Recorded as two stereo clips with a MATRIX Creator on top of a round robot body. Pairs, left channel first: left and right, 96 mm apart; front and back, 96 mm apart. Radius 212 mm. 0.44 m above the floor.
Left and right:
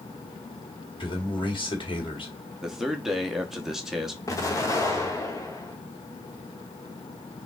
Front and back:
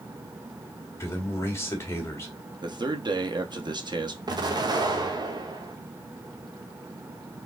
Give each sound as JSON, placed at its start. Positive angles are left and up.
{"t": 1.0, "sound": "a man speaking", "azimuth_deg": 60, "distance_m": 1.9}
{"t": 2.6, "sound": "a man speaking", "azimuth_deg": -175, "distance_m": 1.3}
{"t": 4.3, "sound": "an explosion", "azimuth_deg": 140, "distance_m": 1.3}